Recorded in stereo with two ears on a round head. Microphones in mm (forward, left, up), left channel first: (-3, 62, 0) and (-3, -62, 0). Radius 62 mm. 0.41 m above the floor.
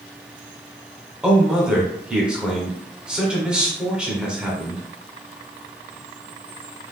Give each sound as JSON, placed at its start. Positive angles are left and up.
{"t": 1.2, "sound": "a man speaking", "side_deg": -5, "distance_m": 1.1}